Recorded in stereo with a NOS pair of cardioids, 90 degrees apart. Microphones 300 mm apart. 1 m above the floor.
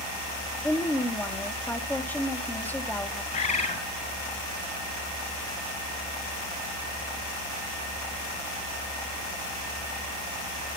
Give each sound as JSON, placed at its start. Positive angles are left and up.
{"t": 0.6, "sound": "a woman speaking", "azimuth_deg": 5, "distance_m": 2.0}
{"t": 3.3, "sound": "a bird", "azimuth_deg": 25, "distance_m": 3.5}